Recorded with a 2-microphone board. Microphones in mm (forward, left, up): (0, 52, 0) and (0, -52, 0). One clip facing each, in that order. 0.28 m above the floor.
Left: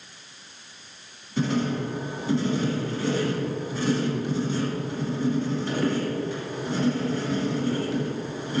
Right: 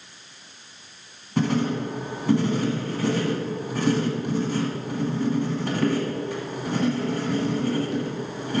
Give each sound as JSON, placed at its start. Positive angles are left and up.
{"t": 1.4, "sound": "writing", "side_deg": -60, "distance_m": 1.8}